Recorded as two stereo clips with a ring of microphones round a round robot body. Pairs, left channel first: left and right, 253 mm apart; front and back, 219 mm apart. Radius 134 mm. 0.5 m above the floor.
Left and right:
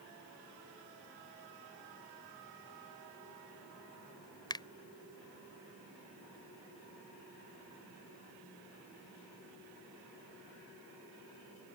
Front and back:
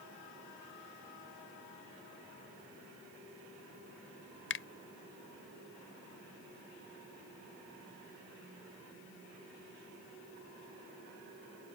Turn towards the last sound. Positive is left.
turn(degrees=15)